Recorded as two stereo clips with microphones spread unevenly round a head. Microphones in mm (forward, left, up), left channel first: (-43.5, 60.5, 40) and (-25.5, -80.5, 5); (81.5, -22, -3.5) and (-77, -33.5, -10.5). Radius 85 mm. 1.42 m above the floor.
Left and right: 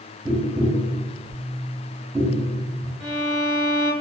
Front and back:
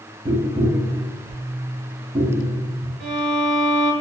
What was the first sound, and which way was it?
Tapping, 150° right.